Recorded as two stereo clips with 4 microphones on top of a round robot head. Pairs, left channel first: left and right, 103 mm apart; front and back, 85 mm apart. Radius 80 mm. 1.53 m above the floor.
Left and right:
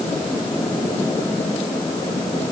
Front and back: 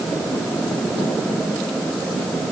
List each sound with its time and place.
Only background noise.